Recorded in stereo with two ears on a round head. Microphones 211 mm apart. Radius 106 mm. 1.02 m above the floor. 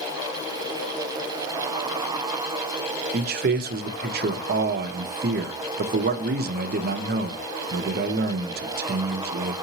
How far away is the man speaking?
About 0.5 m.